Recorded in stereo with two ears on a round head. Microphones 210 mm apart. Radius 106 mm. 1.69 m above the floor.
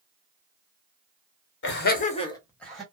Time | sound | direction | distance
1.6 | laughter | 50° left (ahead or behind) | 1.0 m